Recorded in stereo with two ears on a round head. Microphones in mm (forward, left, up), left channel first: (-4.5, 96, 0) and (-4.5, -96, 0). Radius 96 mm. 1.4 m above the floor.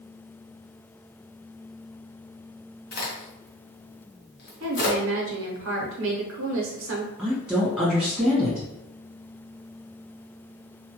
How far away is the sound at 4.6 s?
About 0.8 m.